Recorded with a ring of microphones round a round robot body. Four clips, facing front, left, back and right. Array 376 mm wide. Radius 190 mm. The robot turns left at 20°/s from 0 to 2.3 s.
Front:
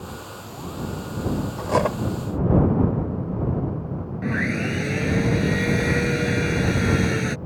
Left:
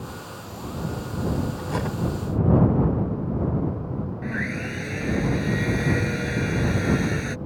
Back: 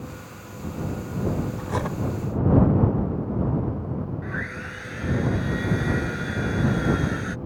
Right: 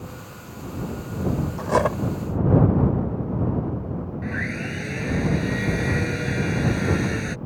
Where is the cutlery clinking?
45° right; by 2.0 s 50° right.